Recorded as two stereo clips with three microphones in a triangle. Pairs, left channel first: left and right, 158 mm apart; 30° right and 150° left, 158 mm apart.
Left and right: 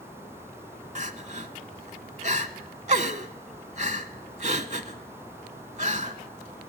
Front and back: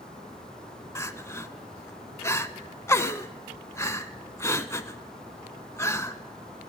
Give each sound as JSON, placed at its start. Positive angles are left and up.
{"t": 0.9, "sound": "crying", "azimuth_deg": -100, "distance_m": 0.6}